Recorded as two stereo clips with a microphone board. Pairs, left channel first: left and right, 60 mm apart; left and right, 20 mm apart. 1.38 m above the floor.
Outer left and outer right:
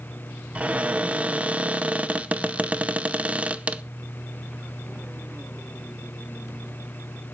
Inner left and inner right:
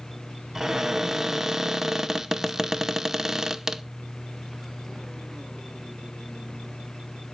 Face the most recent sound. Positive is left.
turn(degrees=-20)  # may be behind; listen again after turning